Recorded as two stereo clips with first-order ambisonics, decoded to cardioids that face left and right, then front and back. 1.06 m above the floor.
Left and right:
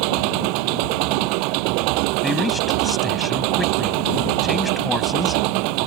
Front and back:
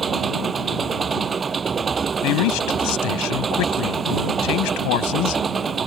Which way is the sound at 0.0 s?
110° right.